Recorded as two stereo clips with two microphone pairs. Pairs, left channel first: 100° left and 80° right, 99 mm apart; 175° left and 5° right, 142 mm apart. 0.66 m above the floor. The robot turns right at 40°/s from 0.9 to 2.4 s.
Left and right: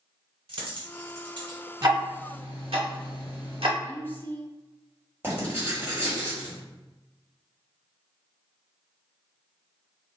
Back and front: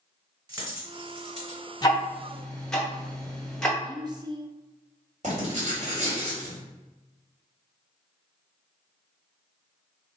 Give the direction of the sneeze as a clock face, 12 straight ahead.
No sneeze in this recording.